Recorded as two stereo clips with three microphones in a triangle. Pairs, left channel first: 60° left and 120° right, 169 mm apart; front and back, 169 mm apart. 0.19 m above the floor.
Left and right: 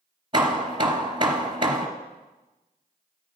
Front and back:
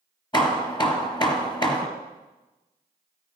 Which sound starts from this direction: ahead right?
Hammering, at 0.3 s.